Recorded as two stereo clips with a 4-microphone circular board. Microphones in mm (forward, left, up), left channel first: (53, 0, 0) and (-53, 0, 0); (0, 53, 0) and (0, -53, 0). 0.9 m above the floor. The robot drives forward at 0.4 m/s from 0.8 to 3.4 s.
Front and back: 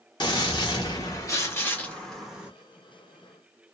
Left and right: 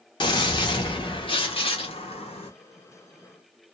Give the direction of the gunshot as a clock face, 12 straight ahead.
10 o'clock.